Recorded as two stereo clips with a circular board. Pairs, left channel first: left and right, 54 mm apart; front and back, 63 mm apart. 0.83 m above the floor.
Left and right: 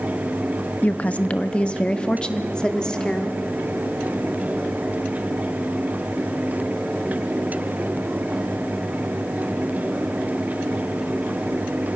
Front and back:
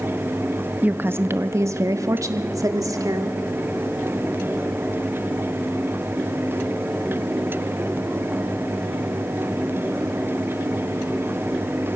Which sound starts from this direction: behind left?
A woman speaking, at 0.8 s.